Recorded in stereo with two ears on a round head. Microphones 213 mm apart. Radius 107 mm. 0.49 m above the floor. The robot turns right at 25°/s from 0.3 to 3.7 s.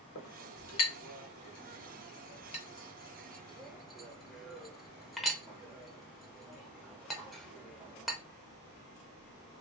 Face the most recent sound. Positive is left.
turn(degrees=0)  # may be behind; listen again after turning